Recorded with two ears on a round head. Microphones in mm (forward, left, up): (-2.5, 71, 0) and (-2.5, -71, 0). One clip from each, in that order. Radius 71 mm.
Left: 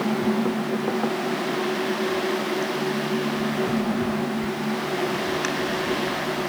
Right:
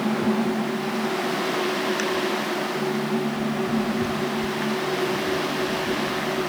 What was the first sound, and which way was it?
Only background noise.